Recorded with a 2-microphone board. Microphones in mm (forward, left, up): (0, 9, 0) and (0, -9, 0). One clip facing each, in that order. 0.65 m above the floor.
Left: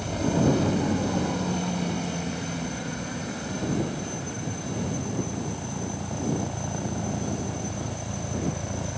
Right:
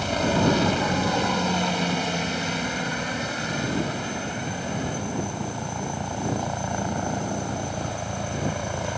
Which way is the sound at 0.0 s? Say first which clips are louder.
Right 2 dB; 35° right (ahead or behind).